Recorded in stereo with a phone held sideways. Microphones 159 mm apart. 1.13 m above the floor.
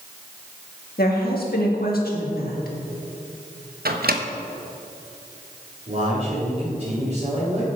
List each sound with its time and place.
1.0 s a woman speaking: 85° left, 1.7 m
3.9 s a microwave: 85° right, 0.9 m
5.9 s a man speaking: 45° right (ahead or behind), 3.5 m